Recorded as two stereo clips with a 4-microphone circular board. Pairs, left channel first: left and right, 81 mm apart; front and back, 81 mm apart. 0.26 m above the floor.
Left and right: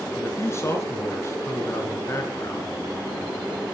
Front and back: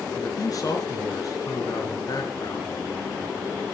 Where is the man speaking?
35° left, 4 m.